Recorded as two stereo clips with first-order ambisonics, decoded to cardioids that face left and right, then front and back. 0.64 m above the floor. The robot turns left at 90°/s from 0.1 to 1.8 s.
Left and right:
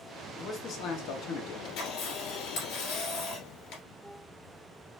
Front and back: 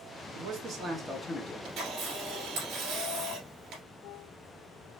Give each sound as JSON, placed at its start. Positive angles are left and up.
{"t": 0.3, "sound": "a man speaking", "azimuth_deg": 160, "distance_m": 0.8}
{"t": 1.6, "sound": "a camera shutter", "azimuth_deg": 145, "distance_m": 1.9}